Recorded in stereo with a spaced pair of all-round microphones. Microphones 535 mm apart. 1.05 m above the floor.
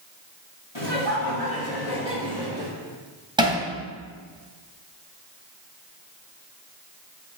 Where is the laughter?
60° left (ahead or behind), 2.5 m; by 2.7 s 75° left (ahead or behind), 3 m.